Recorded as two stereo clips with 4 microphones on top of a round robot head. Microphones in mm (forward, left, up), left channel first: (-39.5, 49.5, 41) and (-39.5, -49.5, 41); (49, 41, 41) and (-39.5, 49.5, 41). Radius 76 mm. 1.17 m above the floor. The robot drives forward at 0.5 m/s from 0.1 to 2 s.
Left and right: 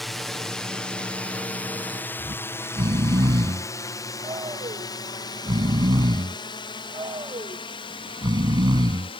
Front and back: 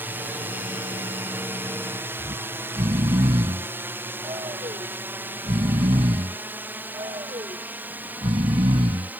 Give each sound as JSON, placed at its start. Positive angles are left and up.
{"t": 0.0, "sound": "a drone", "azimuth_deg": 175}
{"t": 2.2, "sound": "snoring", "azimuth_deg": -140}